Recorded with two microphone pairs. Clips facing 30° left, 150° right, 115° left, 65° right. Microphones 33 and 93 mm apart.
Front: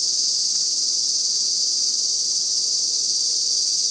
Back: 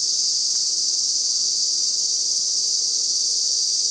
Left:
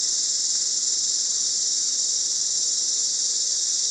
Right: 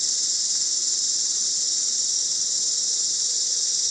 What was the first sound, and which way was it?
An insect, 50° left.